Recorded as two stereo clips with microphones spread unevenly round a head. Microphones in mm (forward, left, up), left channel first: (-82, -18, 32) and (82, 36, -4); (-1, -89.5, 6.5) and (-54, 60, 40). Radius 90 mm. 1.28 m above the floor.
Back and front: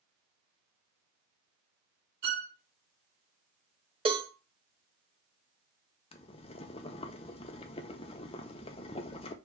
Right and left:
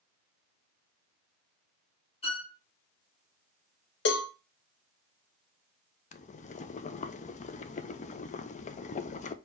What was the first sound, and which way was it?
A violin, 15° right.